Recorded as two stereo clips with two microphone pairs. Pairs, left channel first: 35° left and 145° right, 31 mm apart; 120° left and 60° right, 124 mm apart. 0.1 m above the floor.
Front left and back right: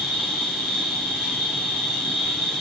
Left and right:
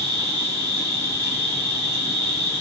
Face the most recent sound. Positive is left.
turn(degrees=-60)